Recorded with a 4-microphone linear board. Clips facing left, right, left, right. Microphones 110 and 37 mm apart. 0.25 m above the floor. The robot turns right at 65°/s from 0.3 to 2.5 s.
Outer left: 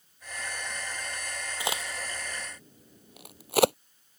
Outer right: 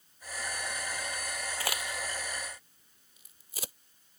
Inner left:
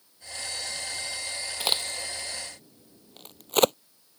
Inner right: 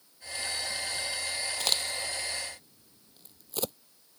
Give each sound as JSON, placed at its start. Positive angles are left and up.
{"t": 1.6, "sound": "a crack", "side_deg": 15}